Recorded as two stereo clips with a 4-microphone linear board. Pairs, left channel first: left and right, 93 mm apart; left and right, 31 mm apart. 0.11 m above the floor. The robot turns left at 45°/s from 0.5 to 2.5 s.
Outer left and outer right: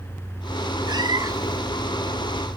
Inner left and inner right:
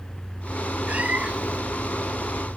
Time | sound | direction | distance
0.9 | a cat meowing | 90° right | 0.6 m